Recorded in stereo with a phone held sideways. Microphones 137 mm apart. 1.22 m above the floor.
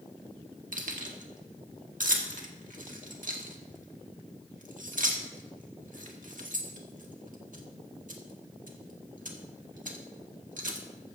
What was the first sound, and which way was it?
Keys jangling, 75° right (ahead or behind).